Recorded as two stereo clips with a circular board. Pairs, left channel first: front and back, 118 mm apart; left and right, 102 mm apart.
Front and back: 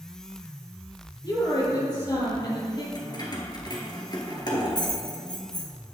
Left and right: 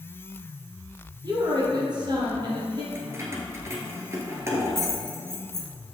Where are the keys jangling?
35° right, 1.5 m.